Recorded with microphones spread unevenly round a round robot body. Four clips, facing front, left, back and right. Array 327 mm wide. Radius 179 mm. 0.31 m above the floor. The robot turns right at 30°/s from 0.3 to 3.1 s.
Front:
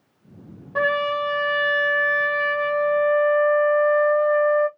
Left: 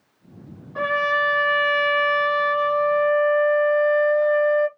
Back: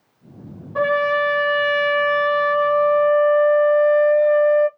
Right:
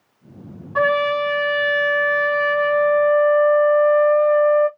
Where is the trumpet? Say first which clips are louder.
Right 4 dB, back 4 dB; 10° right, 0.6 m; by 4.7 s 65° left, 0.6 m.